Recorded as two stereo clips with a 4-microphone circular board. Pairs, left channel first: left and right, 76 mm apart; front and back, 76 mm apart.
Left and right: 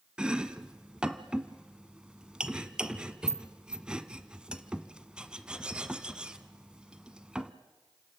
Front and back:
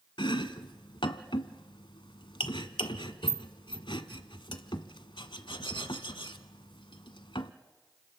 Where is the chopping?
10° right, 1.1 m.